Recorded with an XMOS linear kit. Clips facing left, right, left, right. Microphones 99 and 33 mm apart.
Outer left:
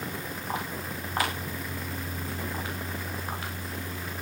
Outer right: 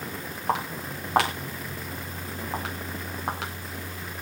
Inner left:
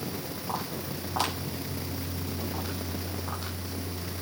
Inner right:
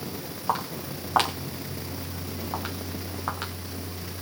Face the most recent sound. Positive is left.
turn(degrees=-85)